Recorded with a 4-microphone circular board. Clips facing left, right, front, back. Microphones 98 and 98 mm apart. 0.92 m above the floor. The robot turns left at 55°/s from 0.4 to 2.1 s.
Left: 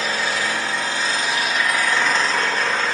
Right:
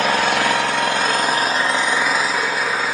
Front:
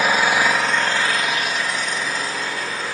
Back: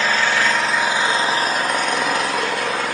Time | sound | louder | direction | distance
0.0 | an engine running | right 6 dB, front 1 dB | 80° right | 0.8 m